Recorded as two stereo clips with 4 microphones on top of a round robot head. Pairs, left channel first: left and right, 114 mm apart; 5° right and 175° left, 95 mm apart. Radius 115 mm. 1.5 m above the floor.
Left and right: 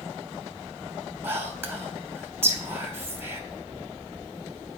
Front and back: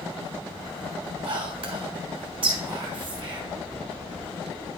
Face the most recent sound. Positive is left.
turn(degrees=-160)